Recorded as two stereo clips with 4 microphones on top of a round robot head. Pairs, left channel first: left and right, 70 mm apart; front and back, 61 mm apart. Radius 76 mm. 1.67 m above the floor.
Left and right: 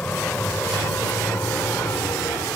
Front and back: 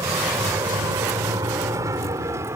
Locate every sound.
0.0 s a vehicle: 165° left; by 2.6 s 145° left